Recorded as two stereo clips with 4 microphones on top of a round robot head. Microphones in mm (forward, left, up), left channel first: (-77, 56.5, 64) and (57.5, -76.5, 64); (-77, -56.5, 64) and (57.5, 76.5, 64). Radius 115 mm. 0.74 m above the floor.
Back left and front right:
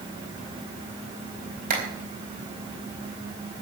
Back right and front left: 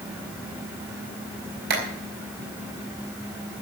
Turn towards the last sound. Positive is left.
turn(degrees=5)